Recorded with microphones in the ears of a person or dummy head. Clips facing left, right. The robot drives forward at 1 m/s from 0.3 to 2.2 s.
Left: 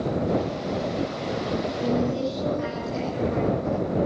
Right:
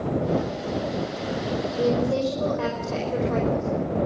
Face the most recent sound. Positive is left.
turn(degrees=-80)